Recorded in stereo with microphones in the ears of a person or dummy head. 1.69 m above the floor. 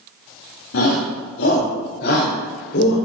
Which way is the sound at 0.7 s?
80° left.